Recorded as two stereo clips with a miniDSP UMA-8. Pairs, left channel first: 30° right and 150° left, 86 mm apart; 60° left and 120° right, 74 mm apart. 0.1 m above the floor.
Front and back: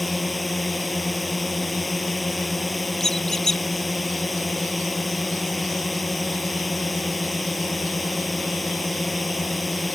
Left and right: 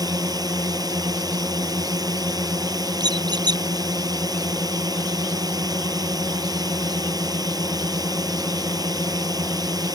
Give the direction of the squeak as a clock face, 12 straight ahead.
4 o'clock.